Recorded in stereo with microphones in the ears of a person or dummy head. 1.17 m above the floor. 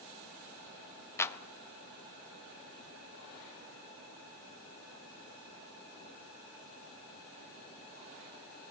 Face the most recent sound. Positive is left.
turn(degrees=15)  # may be behind; listen again after turning